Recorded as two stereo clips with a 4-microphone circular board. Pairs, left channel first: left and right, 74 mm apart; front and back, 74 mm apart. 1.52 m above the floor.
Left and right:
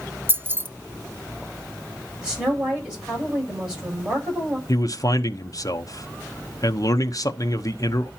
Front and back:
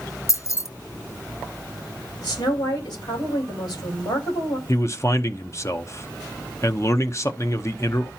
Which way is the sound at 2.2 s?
15° right.